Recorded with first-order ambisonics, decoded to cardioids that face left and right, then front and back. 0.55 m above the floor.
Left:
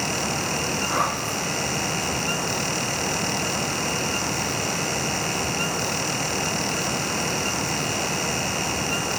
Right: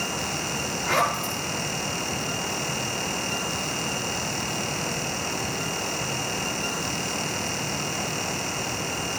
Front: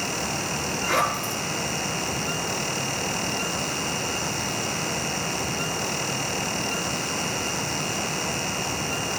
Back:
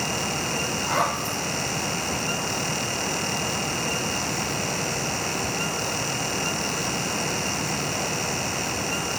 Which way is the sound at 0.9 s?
45° right.